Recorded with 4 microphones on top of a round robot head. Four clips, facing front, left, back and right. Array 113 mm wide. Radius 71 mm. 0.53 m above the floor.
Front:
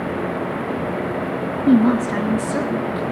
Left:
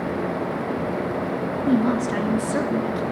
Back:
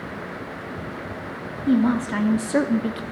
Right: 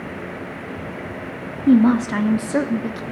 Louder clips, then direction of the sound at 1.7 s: Right 7 dB, front 4 dB; 50° right.